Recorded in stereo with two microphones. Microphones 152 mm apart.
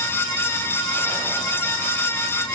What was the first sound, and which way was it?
Only background noise.